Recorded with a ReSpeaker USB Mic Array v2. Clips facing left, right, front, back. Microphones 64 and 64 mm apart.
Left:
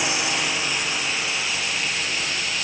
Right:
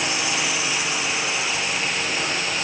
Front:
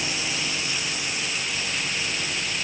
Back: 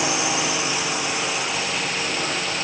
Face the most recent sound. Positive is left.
turn(degrees=-150)